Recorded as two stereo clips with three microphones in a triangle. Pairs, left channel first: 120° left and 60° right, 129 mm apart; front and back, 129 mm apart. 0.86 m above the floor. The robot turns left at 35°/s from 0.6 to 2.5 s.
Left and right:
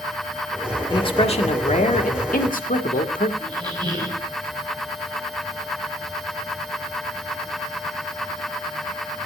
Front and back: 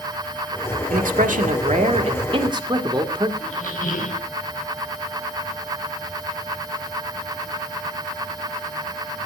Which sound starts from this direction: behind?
A man speaking, at 0.9 s.